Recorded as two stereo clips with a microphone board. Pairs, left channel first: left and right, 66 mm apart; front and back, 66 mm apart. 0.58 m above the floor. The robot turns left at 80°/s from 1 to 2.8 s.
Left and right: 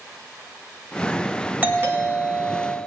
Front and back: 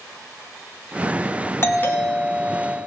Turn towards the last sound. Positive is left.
turn(degrees=-130)